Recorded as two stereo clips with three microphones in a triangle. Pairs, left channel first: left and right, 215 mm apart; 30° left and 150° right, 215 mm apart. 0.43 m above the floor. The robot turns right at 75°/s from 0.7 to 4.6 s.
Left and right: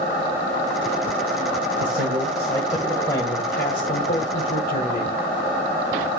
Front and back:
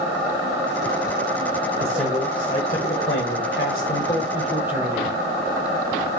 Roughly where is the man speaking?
Right.